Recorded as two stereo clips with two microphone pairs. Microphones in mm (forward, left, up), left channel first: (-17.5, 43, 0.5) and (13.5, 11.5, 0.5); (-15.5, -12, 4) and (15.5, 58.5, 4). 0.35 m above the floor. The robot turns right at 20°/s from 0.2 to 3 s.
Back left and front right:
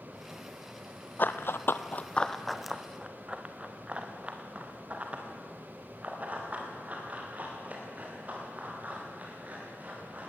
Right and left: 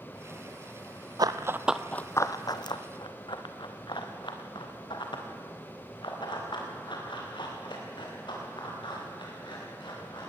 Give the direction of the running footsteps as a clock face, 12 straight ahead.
9 o'clock.